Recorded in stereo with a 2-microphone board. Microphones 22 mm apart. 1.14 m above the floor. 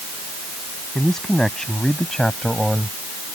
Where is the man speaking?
25° left (ahead or behind); by 3.0 s 20° left (ahead or behind).